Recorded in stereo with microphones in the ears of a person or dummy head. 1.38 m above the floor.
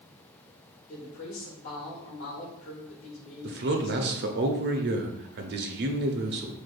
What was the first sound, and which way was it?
A woman speaking, 55° left (ahead or behind).